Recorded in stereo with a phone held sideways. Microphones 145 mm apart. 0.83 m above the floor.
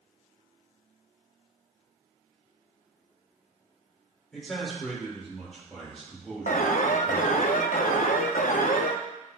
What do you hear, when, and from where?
4.3 s a man speaking: 5° left (ahead or behind), 3 m
6.5 s an alarm: 80° left, 0.5 m